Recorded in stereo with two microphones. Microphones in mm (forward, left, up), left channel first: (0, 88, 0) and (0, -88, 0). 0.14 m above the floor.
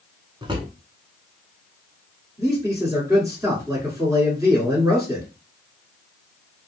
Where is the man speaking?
15° right (ahead or behind), 1.8 m.